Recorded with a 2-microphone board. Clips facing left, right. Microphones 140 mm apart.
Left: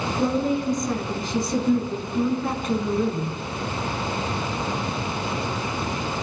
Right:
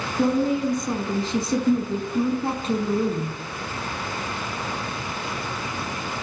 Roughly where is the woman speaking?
Right.